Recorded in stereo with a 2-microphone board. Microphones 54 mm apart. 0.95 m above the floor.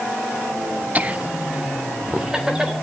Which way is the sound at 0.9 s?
30° right (ahead or behind).